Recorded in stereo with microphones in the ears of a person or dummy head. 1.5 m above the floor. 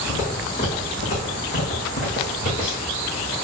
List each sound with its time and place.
0.1 s footsteps: 45° left (ahead or behind), 4 m